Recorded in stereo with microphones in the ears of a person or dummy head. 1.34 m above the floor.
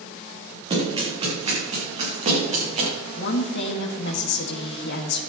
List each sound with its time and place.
0.7 s running footsteps: 30° right (ahead or behind), 7.5 m; by 2.9 s 40° right (ahead or behind), 8.5 m
3.1 s a woman speaking: 50° left (ahead or behind), 2.5 m